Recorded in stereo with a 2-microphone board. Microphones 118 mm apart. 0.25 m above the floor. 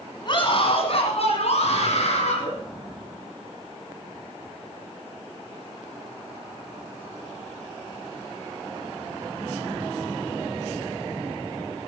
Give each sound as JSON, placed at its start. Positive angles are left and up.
{"t": 0.2, "sound": "a scream", "side_deg": 45, "distance_m": 2.0}